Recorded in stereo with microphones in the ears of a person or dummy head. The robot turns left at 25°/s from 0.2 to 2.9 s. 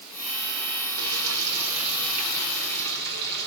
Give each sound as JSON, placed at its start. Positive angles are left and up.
{"t": 1.0, "sound": "frying", "azimuth_deg": -80, "distance_m": 4.5}